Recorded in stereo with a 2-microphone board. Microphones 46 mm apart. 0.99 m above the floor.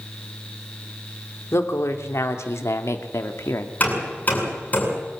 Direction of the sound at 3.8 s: 40° left (ahead or behind).